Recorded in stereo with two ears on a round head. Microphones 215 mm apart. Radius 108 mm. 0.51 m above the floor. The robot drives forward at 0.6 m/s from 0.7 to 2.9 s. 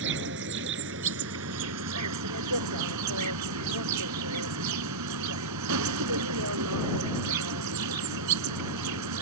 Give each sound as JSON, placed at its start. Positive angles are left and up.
{"t": 0.0, "sound": "an insect", "side_deg": -50}